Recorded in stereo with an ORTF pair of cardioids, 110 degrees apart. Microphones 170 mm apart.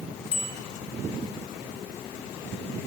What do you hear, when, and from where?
0.3 s a bicycle bell: 40° left, 4 m